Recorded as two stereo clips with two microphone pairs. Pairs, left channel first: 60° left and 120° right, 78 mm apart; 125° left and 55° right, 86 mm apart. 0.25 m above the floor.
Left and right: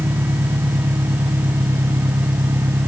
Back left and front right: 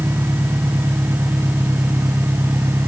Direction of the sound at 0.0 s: 115° right.